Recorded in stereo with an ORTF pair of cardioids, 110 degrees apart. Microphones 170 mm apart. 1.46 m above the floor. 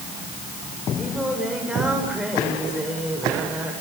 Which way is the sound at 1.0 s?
5° right.